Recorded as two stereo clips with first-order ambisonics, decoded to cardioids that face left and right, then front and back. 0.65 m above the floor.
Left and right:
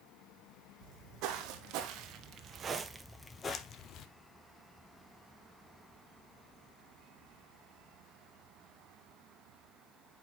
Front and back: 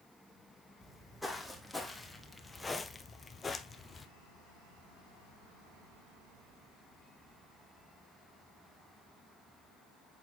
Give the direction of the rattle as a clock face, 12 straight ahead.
I don't hear a rattle.